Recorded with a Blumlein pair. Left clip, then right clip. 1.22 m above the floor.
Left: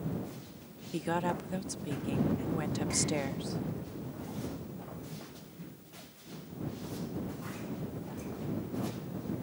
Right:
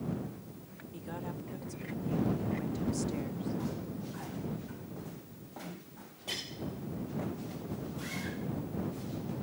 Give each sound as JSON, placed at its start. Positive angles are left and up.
{"t": 0.9, "sound": "a woman speaking", "azimuth_deg": 60}